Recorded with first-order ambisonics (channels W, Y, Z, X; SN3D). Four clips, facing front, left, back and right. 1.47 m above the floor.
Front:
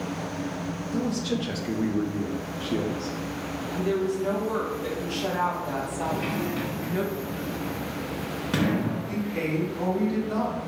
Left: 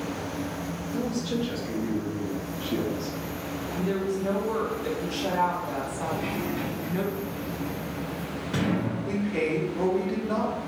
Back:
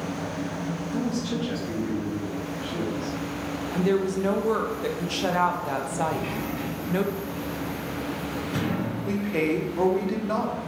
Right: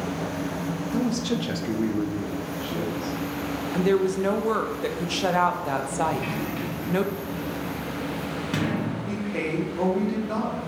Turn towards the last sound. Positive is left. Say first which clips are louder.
# left 1 dB, back 4 dB
turn(degrees=-175)